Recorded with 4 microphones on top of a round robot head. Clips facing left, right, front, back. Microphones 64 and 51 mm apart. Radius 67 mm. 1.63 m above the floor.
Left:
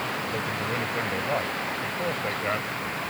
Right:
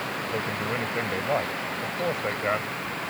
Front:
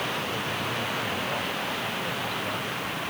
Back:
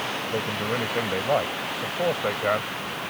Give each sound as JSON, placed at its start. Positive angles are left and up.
{"t": 0.3, "sound": "a man speaking", "azimuth_deg": -165}